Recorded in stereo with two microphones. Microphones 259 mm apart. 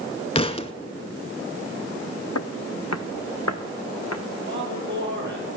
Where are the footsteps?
75° left (ahead or behind), 0.6 m; by 4.2 s 70° left (ahead or behind), 1.6 m.